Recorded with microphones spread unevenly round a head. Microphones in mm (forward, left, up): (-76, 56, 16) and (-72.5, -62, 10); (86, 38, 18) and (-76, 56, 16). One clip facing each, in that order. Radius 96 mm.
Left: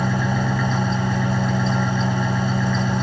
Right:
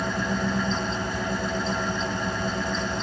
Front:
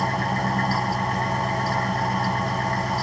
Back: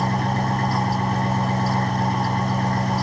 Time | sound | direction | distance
0.0 | an engine running | 110° left | 3.5 m